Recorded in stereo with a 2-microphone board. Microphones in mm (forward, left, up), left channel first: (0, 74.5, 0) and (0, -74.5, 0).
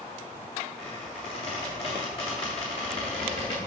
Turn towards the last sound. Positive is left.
turn(degrees=40)  # may be behind; listen again after turning